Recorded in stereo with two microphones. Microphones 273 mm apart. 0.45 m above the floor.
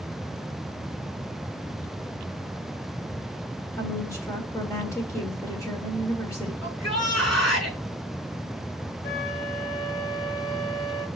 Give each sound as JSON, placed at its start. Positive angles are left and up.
{"t": 3.8, "sound": "a woman speaking", "side_deg": 10, "distance_m": 1.7}
{"t": 6.6, "sound": "a shout", "side_deg": 70, "distance_m": 5.5}
{"t": 9.0, "sound": "a flute", "side_deg": 55, "distance_m": 6.0}